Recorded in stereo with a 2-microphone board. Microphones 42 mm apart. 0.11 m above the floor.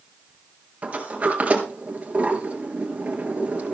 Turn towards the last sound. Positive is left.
turn(degrees=-35)  # may be behind; listen again after turning